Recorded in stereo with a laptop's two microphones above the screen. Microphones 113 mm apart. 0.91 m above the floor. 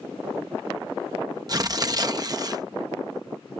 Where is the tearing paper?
35° right (ahead or behind).